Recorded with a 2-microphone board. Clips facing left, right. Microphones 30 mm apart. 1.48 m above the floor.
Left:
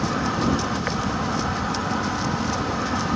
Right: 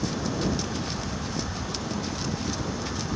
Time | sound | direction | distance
0.0 | an insect | 80° left | ?